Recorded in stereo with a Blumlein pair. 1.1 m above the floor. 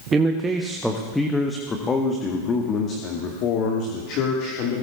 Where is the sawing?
No sawing in this recording.